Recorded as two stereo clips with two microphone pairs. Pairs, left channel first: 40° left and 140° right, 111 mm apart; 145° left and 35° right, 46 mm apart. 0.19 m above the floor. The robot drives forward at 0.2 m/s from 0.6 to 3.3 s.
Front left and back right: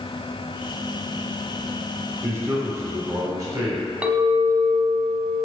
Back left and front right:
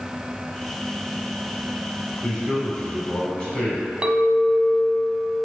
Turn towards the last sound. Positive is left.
turn(degrees=-80)